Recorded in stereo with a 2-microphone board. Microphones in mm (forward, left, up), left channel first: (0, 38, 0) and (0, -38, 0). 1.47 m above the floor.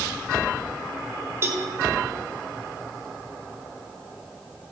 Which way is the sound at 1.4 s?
35° right (ahead or behind).